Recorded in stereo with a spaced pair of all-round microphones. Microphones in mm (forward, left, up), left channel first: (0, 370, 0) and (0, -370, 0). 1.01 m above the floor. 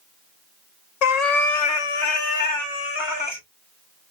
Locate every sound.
1.0 s a cat meowing: 60° left (ahead or behind), 0.7 m; by 3.4 s 10° left (ahead or behind), 1.3 m